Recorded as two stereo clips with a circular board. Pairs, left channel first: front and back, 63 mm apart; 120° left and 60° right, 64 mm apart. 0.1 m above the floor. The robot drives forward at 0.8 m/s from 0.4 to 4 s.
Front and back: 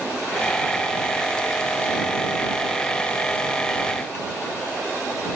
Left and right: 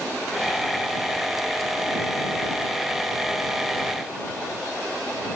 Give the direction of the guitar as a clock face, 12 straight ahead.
I don't hear a guitar.